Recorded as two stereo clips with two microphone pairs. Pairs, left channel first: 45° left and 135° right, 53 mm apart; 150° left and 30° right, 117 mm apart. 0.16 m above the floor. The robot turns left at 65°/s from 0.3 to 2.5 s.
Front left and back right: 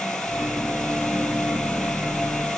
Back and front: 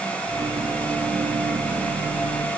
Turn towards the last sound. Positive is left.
No sound to turn to.